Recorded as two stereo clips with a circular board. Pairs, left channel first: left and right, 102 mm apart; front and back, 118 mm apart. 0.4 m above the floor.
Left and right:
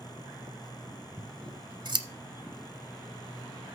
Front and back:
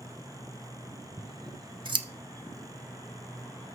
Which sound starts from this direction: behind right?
Scissors, at 1.2 s.